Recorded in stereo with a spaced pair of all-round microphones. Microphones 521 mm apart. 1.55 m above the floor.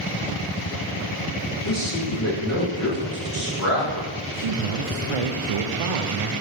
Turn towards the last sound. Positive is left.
turn(degrees=-70)  # may be behind; listen again after turning